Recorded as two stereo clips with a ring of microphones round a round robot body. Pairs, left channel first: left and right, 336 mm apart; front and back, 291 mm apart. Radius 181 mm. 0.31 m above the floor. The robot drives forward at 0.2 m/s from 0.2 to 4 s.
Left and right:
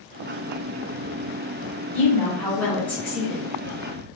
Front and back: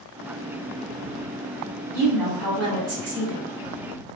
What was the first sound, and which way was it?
A woman speaking, 170° left.